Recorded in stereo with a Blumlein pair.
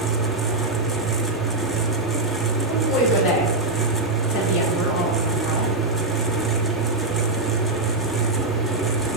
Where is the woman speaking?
20° left, 4.5 m.